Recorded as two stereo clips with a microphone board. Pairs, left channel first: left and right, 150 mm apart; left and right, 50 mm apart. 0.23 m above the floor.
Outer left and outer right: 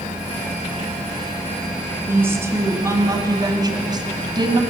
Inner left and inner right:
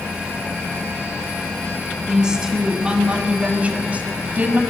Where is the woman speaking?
15° right (ahead or behind), 2 m; by 4.6 s 30° right (ahead or behind), 1.7 m.